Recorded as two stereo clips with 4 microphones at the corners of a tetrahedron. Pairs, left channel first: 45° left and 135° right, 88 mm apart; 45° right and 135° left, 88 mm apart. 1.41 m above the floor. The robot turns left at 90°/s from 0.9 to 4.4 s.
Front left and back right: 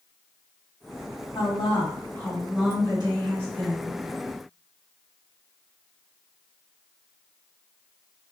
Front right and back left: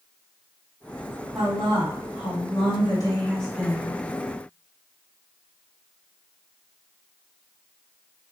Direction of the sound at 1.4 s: 60° left.